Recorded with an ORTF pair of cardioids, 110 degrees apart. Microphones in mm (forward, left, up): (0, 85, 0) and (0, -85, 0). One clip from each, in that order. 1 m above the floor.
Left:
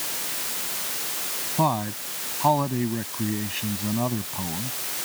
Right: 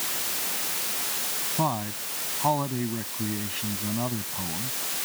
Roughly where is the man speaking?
Ahead left.